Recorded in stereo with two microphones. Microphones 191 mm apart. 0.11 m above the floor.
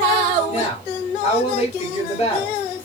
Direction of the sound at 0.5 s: 35° left (ahead or behind).